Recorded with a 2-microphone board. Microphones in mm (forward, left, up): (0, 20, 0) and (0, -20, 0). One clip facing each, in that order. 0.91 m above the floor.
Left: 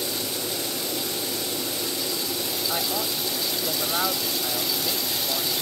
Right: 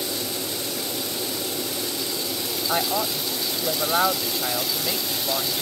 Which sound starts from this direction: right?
A woman speaking, at 2.7 s.